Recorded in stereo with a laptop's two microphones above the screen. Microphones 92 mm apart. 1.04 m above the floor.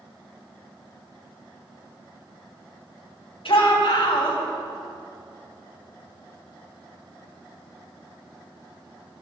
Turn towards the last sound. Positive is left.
turn(degrees=75)  # may be behind; listen again after turning